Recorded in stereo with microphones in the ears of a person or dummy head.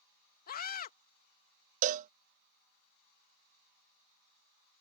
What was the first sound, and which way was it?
A scream, 45° left (ahead or behind).